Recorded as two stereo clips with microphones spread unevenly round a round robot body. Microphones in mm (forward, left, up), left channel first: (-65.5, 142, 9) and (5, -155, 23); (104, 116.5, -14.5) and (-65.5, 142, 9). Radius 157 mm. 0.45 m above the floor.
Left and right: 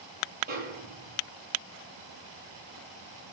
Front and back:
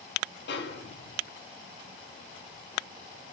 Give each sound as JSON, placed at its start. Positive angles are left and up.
{"t": 0.5, "sound": "a snare drum", "azimuth_deg": -10, "distance_m": 2.0}